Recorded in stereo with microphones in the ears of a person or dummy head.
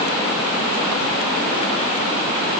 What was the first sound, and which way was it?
Only background noise.